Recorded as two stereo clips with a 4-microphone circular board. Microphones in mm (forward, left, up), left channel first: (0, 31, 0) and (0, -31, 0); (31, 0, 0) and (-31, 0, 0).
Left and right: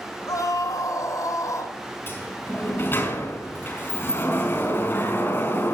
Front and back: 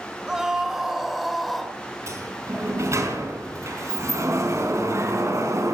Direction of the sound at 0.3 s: 100° left.